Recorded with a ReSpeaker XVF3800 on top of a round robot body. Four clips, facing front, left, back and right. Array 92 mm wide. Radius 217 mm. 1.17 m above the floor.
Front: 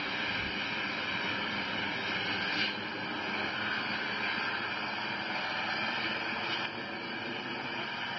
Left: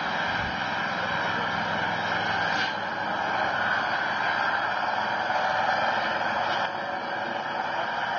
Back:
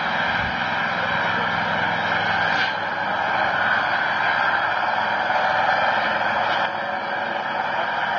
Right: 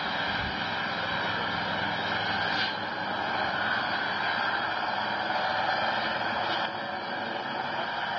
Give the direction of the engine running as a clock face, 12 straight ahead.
6 o'clock.